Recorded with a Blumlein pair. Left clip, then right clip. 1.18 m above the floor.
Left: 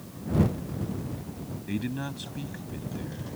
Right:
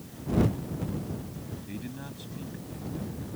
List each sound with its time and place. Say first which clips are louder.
1.7 s a man speaking: left 11 dB; 65° left